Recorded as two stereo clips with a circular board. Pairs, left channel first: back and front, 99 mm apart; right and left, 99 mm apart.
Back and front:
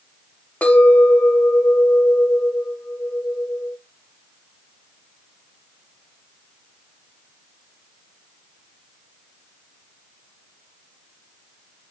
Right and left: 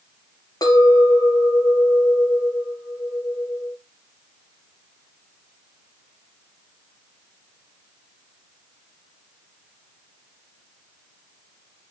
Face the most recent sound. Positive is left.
turn(degrees=-110)